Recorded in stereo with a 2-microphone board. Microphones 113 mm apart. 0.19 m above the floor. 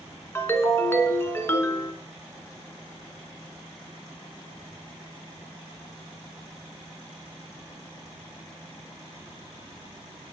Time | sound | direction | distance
0.3 | a ringtone | 20° left (ahead or behind) | 1.0 m